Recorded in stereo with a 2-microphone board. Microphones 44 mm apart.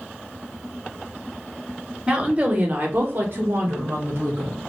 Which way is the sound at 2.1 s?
20° right (ahead or behind).